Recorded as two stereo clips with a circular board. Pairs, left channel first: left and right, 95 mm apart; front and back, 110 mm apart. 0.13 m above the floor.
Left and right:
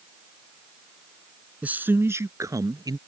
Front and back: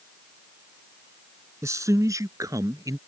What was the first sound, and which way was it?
A man speaking, 150° right.